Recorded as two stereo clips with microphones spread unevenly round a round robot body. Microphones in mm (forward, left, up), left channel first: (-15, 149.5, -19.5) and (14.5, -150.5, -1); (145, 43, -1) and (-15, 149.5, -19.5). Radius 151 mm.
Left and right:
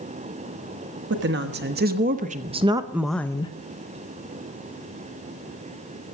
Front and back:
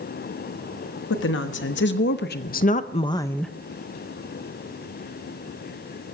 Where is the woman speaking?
30° right, 1.3 m; by 3.5 s 75° left, 0.5 m.